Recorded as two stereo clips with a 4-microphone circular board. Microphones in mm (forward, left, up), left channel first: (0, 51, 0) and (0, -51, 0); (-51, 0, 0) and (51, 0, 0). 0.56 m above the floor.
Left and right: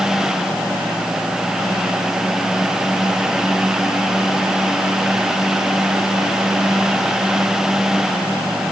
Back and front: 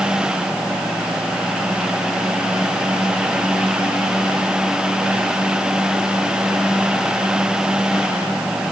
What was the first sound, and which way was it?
Only background noise.